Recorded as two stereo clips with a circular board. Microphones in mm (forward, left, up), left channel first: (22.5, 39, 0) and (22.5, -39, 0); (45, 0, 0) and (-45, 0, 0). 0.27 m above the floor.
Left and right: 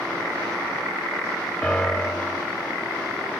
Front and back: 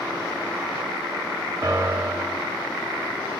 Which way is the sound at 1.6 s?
165° left.